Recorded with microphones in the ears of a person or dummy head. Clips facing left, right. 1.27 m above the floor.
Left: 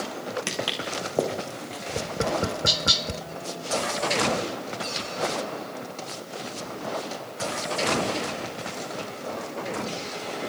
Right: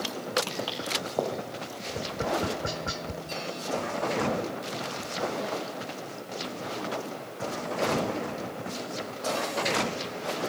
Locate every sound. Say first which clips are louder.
0.5 s footsteps: left 2 dB; 30° left (ahead or behind), 5 m; by 1.8 s 35° left (ahead or behind), 5 m
1.9 s tapping: left 3 dB; 55° left (ahead or behind), 0.6 m